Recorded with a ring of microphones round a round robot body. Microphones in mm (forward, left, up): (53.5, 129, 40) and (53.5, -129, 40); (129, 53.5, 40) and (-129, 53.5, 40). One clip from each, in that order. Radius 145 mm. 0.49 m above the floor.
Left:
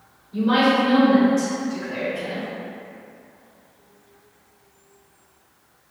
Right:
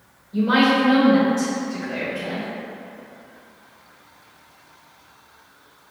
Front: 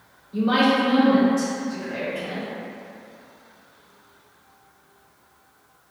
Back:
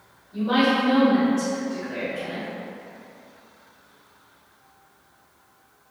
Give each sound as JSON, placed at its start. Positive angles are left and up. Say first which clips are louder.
{"t": 0.3, "sound": "a woman speaking", "louder": "right 1 dB, front 1 dB", "azimuth_deg": 40, "distance_m": 2.0}